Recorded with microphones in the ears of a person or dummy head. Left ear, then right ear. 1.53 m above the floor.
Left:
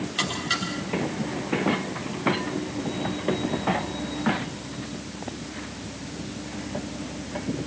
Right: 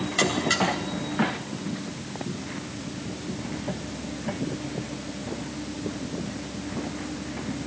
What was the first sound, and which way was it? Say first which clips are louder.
A buzzer: right 3 dB; 25° right (ahead or behind).